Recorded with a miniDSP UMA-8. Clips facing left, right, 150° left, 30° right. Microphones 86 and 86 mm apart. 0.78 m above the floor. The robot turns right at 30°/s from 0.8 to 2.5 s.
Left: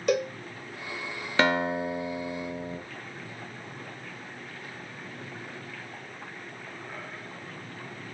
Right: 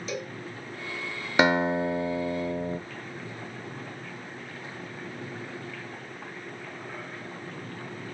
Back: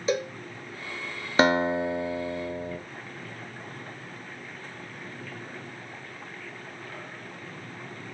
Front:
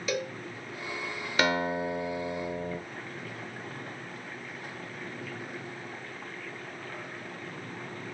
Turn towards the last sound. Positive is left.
turn(degrees=-125)